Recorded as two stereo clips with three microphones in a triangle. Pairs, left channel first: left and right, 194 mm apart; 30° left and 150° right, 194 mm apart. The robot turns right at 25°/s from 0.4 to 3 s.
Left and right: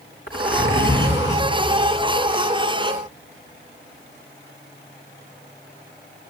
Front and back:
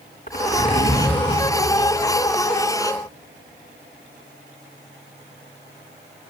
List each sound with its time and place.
0.3 s a zipper: 80° left, 3.5 m; by 1.4 s 105° left, 3.5 m